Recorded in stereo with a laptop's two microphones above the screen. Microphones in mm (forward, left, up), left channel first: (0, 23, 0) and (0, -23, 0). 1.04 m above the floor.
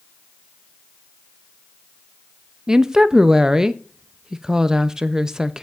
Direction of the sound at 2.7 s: 15° right (ahead or behind).